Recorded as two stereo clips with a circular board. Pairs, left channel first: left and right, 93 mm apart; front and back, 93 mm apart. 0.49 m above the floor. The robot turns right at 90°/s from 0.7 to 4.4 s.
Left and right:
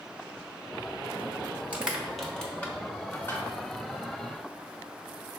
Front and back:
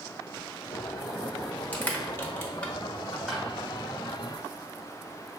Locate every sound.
1.7 s crushing: 40° right, 0.9 m; by 3.5 s 115° left, 0.9 m